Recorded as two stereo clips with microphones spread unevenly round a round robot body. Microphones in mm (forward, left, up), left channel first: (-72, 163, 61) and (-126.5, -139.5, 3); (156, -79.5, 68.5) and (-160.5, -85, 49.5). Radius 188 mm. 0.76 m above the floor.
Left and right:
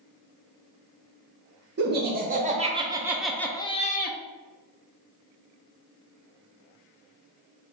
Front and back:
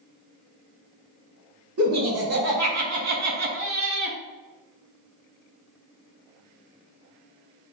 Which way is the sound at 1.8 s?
145° right.